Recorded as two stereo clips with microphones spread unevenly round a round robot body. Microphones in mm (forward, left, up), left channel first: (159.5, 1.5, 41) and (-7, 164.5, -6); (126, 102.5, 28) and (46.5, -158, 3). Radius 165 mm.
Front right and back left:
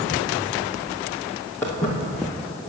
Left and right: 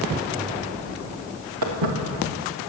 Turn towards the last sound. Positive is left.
turn(degrees=-130)